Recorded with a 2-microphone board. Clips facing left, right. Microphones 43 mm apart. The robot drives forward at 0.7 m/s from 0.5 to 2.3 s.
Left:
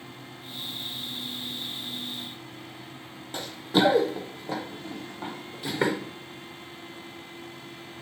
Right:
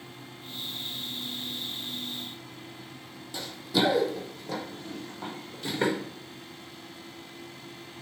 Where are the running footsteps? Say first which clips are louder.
Left 3 dB; 45° left (ahead or behind), 0.8 m; by 5.9 s 10° left (ahead or behind), 1.8 m.